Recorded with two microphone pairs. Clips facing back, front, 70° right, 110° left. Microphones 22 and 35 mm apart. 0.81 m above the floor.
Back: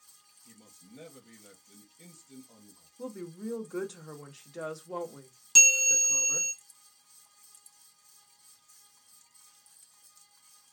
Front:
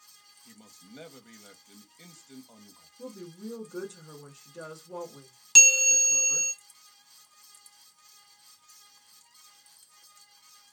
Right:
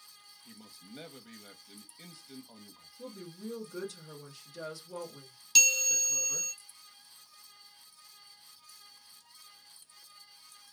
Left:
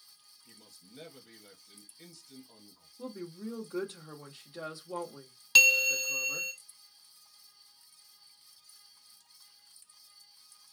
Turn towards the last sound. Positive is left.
turn(degrees=60)